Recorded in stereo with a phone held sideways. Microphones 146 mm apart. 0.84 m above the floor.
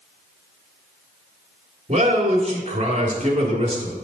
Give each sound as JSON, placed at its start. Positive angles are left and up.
{"t": 1.9, "sound": "a man speaking", "side_deg": -45, "distance_m": 2.0}